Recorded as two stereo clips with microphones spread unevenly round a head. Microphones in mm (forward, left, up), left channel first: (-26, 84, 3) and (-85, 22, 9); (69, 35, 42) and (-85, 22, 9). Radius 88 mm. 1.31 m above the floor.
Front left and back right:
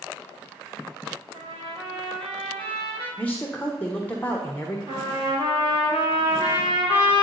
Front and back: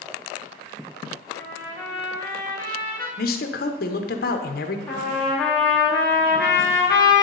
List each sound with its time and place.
1.3 s a trumpet: 135° right, 3 m
3.2 s a man speaking: 30° right, 0.8 m
4.9 s a trumpet: 85° right, 2 m